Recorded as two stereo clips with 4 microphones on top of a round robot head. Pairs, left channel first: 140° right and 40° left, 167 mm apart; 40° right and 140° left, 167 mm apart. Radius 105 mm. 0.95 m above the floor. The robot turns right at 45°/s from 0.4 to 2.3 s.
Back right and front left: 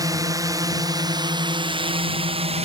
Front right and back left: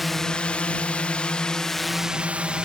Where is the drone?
50° left; by 2.7 s 60° left.